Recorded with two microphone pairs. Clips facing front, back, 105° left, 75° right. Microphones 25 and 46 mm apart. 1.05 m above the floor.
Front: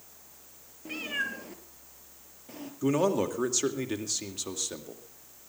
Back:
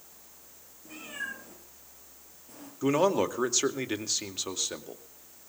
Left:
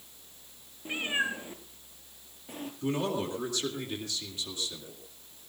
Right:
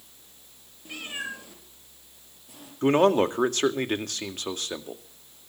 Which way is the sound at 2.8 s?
110° right.